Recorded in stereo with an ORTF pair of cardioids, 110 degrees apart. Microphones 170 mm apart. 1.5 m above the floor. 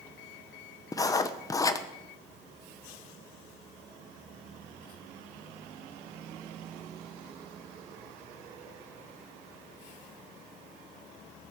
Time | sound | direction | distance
0.9 | writing | 20° left | 1.1 m